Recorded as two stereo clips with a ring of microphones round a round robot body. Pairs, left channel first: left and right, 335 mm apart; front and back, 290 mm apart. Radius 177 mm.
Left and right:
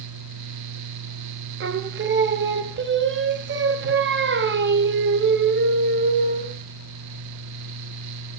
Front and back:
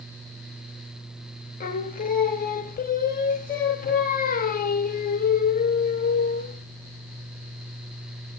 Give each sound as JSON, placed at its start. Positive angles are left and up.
{"t": 1.6, "sound": "singing", "azimuth_deg": -50, "distance_m": 0.6}